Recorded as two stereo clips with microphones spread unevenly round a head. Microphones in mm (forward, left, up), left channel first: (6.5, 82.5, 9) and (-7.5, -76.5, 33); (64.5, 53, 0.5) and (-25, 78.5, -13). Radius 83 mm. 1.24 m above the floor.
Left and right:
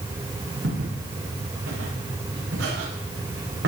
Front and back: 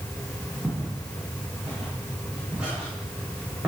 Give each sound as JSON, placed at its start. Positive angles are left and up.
{"t": 0.6, "sound": "footsteps", "azimuth_deg": -110, "distance_m": 9.0}